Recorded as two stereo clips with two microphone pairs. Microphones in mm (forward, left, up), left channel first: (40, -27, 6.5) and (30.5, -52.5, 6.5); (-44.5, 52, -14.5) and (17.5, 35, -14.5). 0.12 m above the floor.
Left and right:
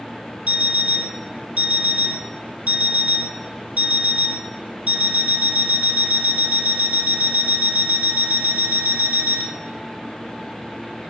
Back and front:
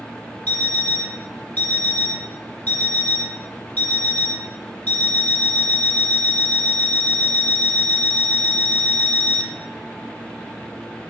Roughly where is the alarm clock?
Behind right.